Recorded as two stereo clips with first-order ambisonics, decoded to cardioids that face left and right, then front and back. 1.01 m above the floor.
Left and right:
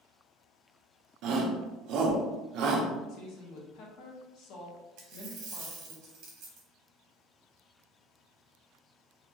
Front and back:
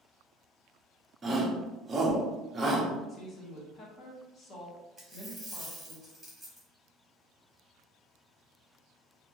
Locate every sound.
1.2 s a shout: 110° right, 0.6 m
3.1 s a woman speaking: 60° left, 0.9 m
5.0 s a dropped coin: 90° right, 1.0 m